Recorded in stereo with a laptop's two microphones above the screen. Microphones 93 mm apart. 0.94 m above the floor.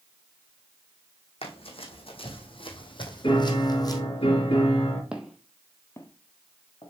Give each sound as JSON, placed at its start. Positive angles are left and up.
{"t": 1.4, "sound": "running footsteps", "side_deg": 70, "distance_m": 2.5}
{"t": 3.2, "sound": "a piano", "side_deg": 65, "distance_m": 3.5}
{"t": 5.1, "sound": "footsteps", "side_deg": -10, "distance_m": 1.3}